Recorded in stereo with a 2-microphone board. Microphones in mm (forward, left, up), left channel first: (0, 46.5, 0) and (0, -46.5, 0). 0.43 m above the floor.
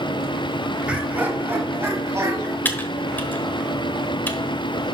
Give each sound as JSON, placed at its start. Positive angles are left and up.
{"t": 0.9, "sound": "laughter", "side_deg": -10, "distance_m": 1.6}
{"t": 2.6, "sound": "typing on a keyboard", "side_deg": 20, "distance_m": 1.0}